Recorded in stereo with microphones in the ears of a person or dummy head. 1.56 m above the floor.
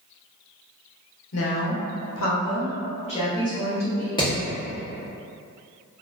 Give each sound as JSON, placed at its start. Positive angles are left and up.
{"t": 1.3, "sound": "a woman speaking", "side_deg": 70, "distance_m": 0.8}
{"t": 4.2, "sound": "hammering", "side_deg": 30, "distance_m": 1.0}